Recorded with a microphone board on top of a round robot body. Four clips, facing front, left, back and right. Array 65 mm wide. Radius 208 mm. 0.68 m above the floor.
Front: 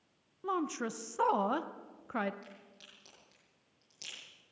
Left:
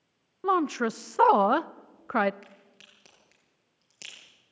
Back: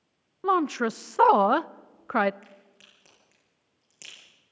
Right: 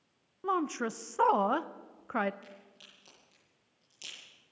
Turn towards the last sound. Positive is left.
turn(degrees=110)